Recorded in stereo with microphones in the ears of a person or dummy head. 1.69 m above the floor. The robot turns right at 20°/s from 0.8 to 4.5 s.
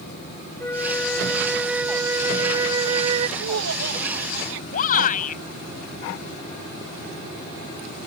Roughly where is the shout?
Left.